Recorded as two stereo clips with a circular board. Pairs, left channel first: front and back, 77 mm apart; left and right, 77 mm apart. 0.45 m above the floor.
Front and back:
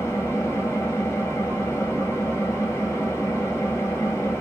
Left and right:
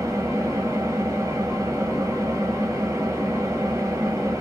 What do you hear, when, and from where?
0.0 s an engine running: 50° right, 1.6 m